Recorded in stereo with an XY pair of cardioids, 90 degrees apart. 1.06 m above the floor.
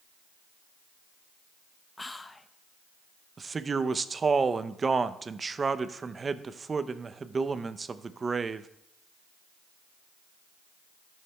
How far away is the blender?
No blender in this recording.